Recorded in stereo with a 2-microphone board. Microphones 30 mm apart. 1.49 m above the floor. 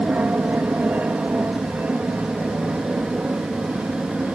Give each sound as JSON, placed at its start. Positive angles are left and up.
{"t": 0.0, "sound": "an aircraft", "side_deg": -55}